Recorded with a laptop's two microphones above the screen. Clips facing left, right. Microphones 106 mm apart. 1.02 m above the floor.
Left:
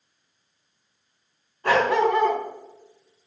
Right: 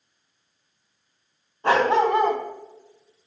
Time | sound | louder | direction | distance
1.6 | a dog barking | right 1 dB | 25° right (ahead or behind) | 2.5 m